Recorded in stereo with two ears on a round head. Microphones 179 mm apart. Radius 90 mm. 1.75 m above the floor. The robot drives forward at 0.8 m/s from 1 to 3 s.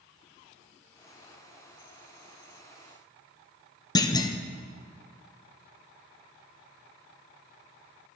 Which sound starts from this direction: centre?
A clunk, at 4.0 s.